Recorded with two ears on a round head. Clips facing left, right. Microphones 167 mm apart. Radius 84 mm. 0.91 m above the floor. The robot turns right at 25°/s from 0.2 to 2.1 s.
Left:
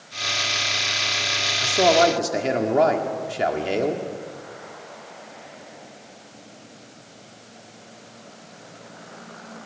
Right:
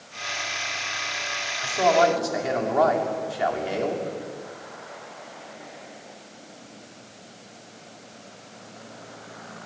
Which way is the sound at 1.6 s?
45° left (ahead or behind).